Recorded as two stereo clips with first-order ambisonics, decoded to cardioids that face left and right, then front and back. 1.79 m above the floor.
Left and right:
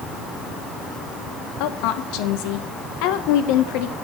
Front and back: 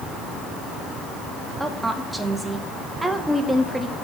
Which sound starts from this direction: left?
A woman speaking, at 1.6 s.